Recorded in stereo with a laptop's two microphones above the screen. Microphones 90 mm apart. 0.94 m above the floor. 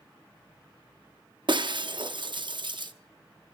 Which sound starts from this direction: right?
Breaking glass, at 1.5 s.